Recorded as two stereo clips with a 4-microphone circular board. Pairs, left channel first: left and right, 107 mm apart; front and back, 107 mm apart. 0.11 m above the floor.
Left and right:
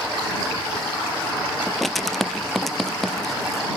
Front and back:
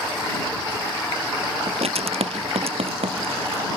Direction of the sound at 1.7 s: Straight behind.